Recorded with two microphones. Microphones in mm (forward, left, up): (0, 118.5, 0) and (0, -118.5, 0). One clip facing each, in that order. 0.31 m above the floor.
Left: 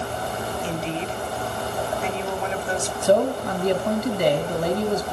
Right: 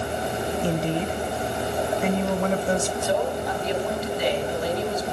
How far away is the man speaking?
About 2.5 m.